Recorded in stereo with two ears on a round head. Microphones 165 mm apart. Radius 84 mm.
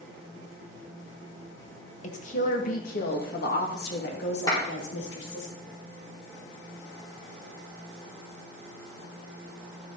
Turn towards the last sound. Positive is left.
turn(degrees=20)  # may be behind; listen again after turning